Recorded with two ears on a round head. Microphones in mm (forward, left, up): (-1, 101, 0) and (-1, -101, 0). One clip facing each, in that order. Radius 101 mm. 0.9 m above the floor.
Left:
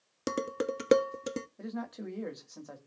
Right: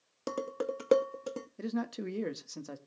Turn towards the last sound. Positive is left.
turn(degrees=-40)  # may be behind; listen again after turning